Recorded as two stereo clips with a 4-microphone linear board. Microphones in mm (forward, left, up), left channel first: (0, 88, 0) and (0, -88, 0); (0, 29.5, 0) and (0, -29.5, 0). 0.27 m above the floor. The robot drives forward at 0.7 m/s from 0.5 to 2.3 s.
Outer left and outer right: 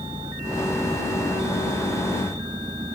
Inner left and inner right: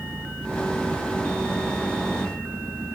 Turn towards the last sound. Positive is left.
turn(degrees=-25)  # may be behind; listen again after turning